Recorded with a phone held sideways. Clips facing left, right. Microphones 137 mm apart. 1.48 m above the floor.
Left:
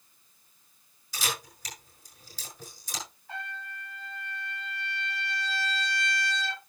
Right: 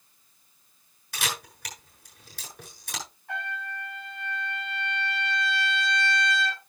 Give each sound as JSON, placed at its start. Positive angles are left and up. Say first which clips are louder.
{"t": 1.1, "sound": "a camera shutter", "louder": "right 1 dB", "side_deg": -60, "distance_m": 7.5}
{"t": 3.3, "sound": "a trumpet", "louder": "right 6 dB", "side_deg": -60, "distance_m": 7.0}